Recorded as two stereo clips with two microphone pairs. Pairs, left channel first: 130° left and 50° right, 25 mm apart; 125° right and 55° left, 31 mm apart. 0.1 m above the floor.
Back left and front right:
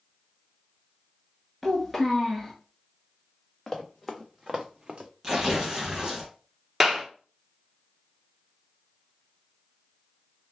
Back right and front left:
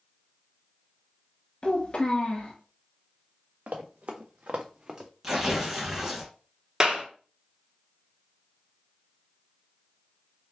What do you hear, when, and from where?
1.6 s a child speaking: 140° right, 0.8 m
3.7 s running footsteps: 55° left, 1.0 m; by 5.1 s 10° right, 0.7 m
5.2 s tearing paper: 5° right, 2.0 m
6.8 s a clap: 20° left, 1.1 m